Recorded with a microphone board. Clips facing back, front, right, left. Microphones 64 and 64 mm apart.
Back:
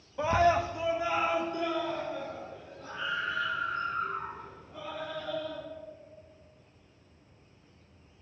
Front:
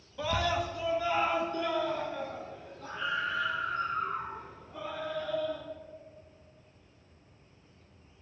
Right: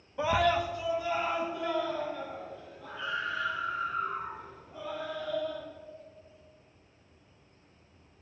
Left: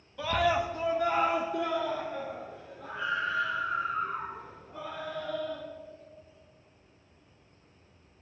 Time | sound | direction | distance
0.2 | a scream | 130° right | 0.7 m